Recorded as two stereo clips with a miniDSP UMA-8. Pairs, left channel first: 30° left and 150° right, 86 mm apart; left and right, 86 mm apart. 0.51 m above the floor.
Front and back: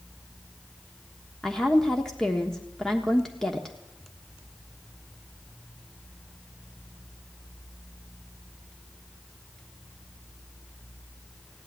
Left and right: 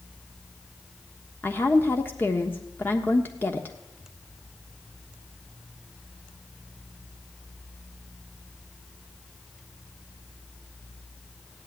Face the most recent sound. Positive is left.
turn(degrees=105)